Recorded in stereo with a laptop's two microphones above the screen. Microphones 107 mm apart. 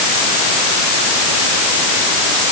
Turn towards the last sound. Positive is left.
No sound to turn to.